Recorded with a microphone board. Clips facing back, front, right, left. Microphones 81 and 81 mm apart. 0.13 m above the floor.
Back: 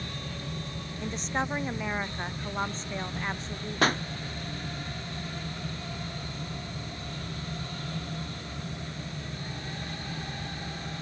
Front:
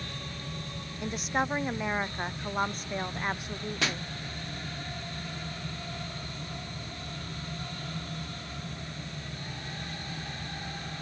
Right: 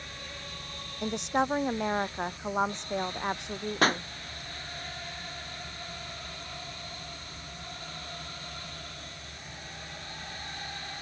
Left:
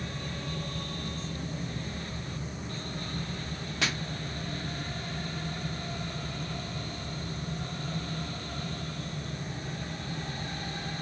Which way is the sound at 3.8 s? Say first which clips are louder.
Back 8 dB, right 8 dB; 135° right.